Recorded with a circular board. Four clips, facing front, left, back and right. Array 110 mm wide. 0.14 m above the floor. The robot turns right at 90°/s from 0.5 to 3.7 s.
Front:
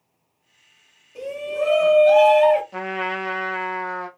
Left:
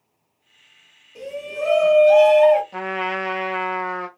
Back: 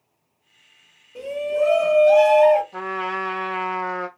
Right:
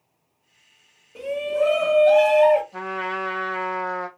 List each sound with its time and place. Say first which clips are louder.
1.1 s a shout: right 6 dB, back 3 dB; 125° right, 1.2 m; by 2.6 s 10° left, 1.2 m
2.7 s a trumpet: left 3 dB, even; 45° left, 0.9 m; by 4.1 s 135° left, 0.9 m